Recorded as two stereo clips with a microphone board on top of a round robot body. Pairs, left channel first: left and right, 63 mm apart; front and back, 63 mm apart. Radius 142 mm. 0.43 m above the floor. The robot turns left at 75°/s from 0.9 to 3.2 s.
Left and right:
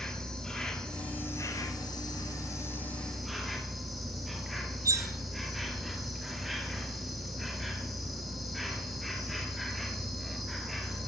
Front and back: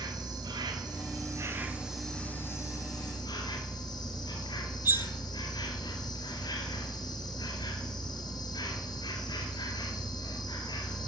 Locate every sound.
0.0 s an insect: 175° left, 2.0 m; by 11.1 s straight ahead, 2.0 m
4.8 s cutlery clinking: 125° right, 0.8 m